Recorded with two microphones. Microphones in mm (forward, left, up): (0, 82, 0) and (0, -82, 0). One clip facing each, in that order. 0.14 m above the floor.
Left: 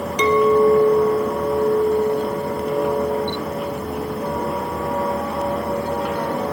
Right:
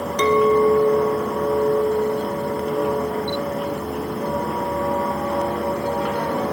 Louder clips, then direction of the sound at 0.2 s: Left 1 dB; 10° left (ahead or behind).